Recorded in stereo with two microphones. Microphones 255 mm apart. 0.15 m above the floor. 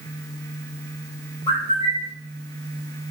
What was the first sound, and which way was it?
A bird, 25° left (ahead or behind).